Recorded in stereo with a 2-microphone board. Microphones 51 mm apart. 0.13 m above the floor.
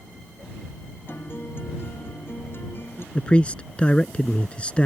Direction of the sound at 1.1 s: 45° left (ahead or behind).